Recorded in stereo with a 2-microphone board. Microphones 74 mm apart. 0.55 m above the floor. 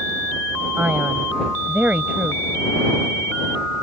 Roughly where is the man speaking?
Right.